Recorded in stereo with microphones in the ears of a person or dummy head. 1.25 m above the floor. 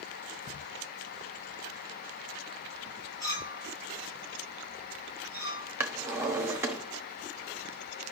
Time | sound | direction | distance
3.2 | a clink | 20° left (ahead or behind) | 6 m
5.8 | a drawer | 15° right (ahead or behind) | 1.0 m